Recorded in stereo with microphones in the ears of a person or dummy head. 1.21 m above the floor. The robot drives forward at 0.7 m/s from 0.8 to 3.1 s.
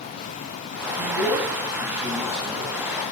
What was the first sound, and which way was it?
A man speaking, 10° right (ahead or behind).